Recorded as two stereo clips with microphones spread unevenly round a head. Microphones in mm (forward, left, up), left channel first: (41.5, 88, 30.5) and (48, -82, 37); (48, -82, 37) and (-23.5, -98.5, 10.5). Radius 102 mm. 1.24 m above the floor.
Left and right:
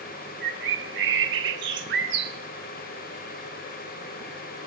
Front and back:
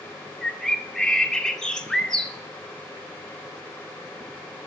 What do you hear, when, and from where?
0.4 s a bird: 75° right, 1.2 m